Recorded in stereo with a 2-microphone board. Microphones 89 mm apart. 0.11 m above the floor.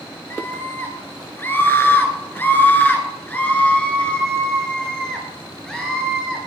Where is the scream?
25° left (ahead or behind), 2 m; by 6.5 s centre (ahead or behind), 2.5 m.